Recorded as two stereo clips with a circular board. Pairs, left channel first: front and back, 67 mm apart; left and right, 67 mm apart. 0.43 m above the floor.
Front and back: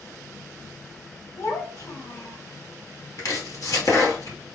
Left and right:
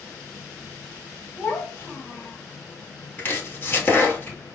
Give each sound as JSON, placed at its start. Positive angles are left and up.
{"t": 1.4, "sound": "a child speaking", "azimuth_deg": 30, "distance_m": 1.8}
{"t": 3.2, "sound": "chopping", "azimuth_deg": 30, "distance_m": 1.7}